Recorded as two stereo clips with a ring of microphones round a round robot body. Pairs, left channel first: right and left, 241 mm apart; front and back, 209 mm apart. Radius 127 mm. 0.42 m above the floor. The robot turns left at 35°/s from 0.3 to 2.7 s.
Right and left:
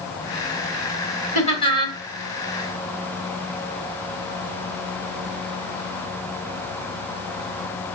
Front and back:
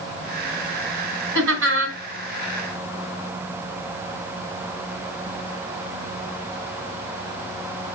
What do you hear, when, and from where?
1.4 s laughter: 150° right, 2.5 m; by 2.0 s 170° right, 2.5 m